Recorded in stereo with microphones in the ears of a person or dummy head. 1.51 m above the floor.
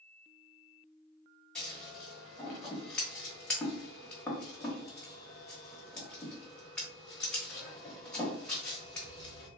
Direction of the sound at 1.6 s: 5° left (ahead or behind).